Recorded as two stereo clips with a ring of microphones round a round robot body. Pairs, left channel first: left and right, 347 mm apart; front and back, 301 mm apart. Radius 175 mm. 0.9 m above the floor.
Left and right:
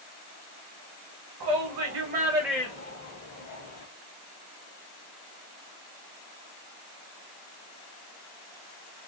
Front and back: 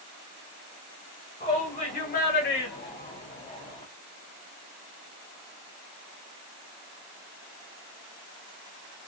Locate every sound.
1.4 s a shout: 75° right, 1.0 m; by 3.8 s 65° left, 1.2 m